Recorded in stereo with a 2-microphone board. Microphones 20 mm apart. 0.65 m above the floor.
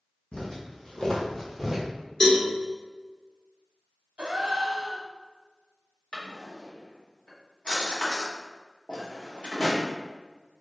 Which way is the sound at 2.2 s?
35° left (ahead or behind).